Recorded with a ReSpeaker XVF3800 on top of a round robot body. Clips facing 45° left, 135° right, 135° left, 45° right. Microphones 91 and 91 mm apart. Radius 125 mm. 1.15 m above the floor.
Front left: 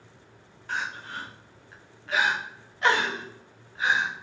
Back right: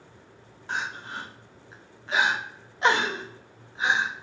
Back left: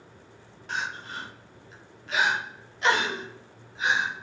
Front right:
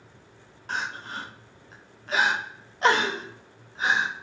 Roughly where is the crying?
Right.